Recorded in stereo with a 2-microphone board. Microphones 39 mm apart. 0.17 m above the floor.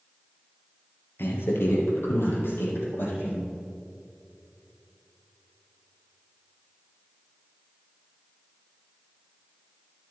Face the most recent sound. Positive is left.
turn(degrees=75)  # may be behind; listen again after turning